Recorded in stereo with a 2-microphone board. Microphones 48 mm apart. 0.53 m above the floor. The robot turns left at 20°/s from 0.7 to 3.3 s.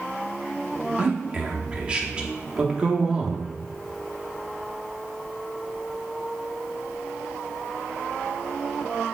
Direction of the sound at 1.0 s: 25° right (ahead or behind).